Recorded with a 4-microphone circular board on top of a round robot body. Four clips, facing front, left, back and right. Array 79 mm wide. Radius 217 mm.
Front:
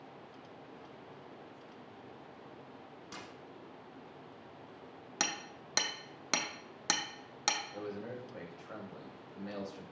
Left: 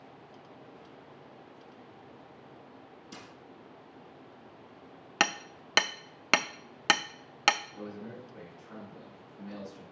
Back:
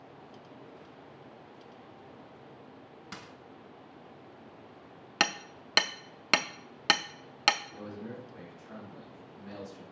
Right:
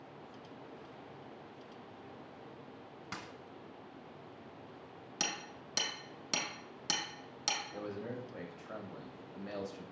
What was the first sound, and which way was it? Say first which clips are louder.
A dropped coin: right 3 dB, back 2 dB; 110° right.